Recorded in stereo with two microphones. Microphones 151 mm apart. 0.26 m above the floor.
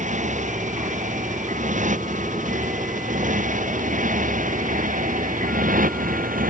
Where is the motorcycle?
55° right (ahead or behind); by 6.5 s 65° right (ahead or behind).